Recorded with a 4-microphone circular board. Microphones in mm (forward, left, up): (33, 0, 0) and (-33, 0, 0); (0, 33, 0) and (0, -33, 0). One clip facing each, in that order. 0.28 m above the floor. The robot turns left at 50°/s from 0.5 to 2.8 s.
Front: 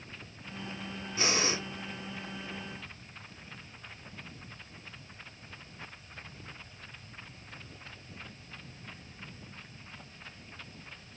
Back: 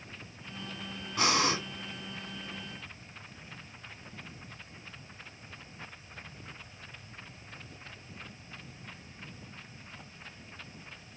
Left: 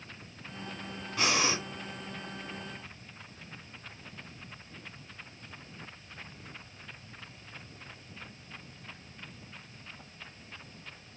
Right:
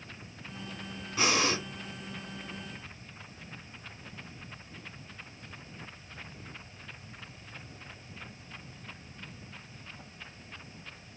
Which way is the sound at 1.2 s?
Straight behind.